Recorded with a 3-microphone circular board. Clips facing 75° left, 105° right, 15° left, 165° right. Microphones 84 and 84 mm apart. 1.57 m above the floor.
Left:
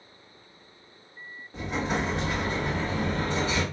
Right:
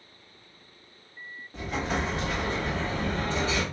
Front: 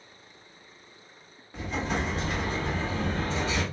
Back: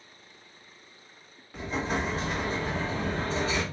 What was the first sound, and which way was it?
An explosion, 145° left.